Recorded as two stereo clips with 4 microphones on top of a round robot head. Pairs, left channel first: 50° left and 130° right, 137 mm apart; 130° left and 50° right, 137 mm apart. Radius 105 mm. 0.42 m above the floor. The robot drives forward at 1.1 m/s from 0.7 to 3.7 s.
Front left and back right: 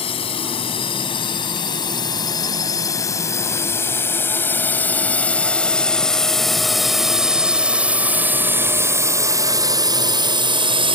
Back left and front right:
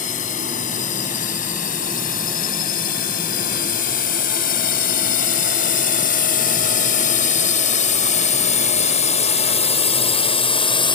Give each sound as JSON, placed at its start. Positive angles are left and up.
{"t": 0.0, "sound": "a drone", "azimuth_deg": 100}